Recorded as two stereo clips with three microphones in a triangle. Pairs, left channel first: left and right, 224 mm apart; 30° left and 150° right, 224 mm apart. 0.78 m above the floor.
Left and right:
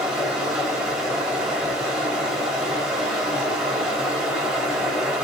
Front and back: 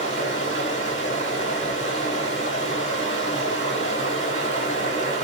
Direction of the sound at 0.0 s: 5° right.